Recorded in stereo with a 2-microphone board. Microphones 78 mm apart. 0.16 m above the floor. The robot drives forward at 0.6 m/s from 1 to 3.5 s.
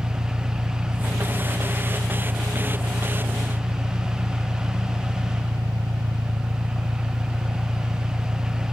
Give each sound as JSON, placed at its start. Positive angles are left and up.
{"t": 0.0, "sound": "an engine running", "side_deg": -80}